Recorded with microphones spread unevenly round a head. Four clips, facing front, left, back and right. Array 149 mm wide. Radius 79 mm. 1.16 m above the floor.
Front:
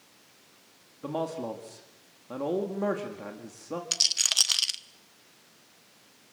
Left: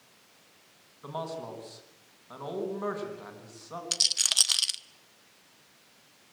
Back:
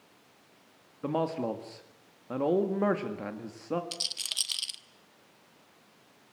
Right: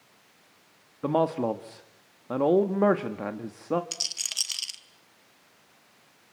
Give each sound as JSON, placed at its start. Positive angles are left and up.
{"t": 1.0, "sound": "a man speaking", "azimuth_deg": -95, "distance_m": 1.7}
{"t": 3.9, "sound": "a rattle", "azimuth_deg": 30, "distance_m": 0.8}